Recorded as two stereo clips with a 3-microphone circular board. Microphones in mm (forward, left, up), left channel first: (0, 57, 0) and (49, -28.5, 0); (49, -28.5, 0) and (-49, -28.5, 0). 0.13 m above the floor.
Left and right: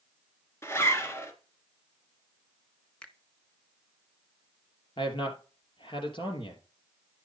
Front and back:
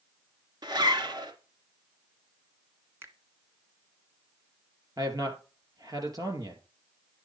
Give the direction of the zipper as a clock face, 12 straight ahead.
6 o'clock.